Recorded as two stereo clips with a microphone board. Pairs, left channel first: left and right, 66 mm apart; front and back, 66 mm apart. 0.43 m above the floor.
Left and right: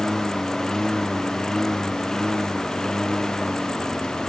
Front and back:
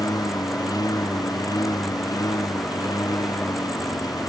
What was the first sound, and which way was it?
A lawn mower, 5° left.